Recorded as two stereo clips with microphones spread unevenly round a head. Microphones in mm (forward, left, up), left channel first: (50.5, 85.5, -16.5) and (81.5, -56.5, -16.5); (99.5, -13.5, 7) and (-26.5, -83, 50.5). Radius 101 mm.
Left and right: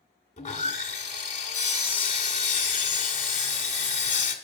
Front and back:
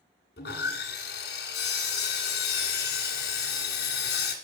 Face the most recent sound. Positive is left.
turn(degrees=70)